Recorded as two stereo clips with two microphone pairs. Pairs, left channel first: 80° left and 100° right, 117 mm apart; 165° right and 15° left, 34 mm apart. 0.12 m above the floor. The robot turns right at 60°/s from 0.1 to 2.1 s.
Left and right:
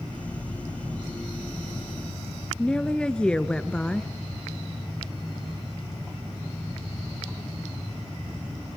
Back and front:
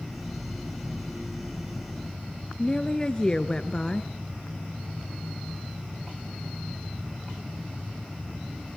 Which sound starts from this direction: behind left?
A woman speaking, at 2.6 s.